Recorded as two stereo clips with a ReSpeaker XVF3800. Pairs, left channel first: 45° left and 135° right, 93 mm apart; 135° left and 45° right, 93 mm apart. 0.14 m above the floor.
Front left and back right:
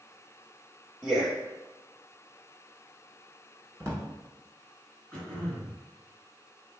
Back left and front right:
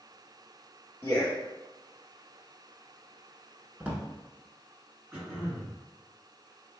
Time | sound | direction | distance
1.0 | a man speaking | 145° left | 1.4 m
3.8 | a drawer | 110° right | 0.7 m
5.1 | throat clearing | 10° right | 1.8 m